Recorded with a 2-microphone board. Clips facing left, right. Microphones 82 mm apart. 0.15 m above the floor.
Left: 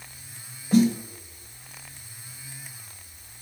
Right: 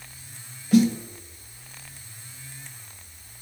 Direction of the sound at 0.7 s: 35° left (ahead or behind).